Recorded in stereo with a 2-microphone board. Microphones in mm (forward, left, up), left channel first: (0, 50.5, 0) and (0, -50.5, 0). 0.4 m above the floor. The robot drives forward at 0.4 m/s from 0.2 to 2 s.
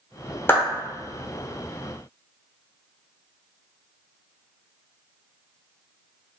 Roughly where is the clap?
Left.